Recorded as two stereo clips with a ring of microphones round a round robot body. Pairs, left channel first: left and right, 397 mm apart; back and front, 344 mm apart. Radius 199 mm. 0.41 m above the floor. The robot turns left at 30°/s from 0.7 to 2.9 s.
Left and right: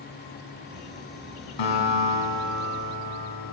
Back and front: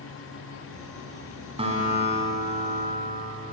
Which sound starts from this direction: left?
A guitar, at 1.6 s.